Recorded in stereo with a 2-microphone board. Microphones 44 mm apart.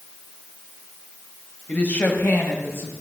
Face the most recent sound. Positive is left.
turn(degrees=60)  # may be behind; listen again after turning